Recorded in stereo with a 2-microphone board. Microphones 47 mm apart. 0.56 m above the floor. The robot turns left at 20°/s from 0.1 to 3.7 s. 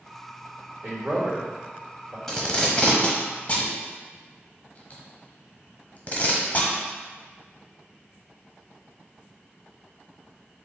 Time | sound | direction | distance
0.8 | a man speaking | 45° right (ahead or behind) | 1.4 m
2.3 | tape being pulled | 10° left (ahead or behind) | 0.9 m